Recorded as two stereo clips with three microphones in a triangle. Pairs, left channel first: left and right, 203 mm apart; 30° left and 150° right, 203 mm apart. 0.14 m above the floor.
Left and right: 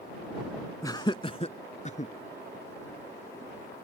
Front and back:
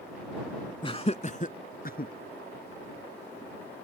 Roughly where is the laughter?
Ahead left.